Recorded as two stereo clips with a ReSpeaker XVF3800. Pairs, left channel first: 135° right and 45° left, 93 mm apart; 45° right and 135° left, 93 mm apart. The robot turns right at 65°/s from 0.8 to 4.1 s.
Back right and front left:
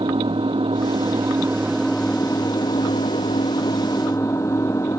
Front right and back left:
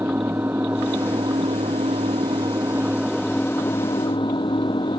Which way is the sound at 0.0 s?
70° left.